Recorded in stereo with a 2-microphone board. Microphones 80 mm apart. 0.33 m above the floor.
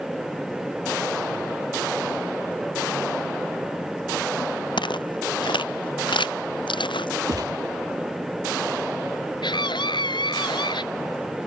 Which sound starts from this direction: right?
A gunshot, at 7.3 s.